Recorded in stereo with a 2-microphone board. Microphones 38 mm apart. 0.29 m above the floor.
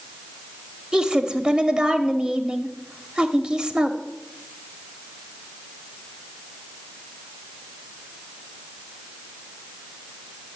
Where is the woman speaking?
25° right (ahead or behind), 0.9 m.